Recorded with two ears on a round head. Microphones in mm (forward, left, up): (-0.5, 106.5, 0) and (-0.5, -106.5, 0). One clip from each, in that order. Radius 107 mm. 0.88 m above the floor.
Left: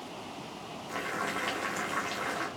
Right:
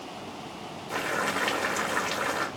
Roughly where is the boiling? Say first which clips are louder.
Right 5 dB; centre.